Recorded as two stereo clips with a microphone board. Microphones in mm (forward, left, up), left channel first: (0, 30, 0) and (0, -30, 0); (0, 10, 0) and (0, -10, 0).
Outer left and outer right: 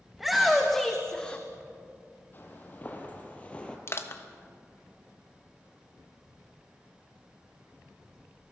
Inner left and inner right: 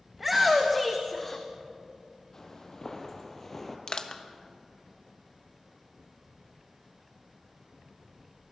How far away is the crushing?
About 1.3 m.